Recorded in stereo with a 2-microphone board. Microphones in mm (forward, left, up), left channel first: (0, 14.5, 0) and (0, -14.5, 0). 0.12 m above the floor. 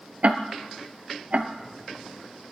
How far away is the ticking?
About 0.8 m.